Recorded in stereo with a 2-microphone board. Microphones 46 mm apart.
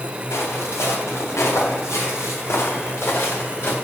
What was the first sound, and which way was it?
Footsteps, 85° left.